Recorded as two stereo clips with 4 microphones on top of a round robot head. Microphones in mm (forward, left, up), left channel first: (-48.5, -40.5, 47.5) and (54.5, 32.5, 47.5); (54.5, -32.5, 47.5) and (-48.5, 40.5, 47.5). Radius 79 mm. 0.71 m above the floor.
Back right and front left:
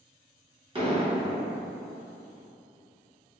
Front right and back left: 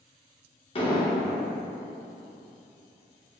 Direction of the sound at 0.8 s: Straight ahead.